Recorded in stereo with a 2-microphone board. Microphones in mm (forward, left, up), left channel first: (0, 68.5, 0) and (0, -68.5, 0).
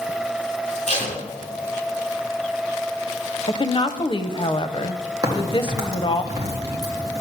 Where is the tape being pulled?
50° left (ahead or behind), 3 m.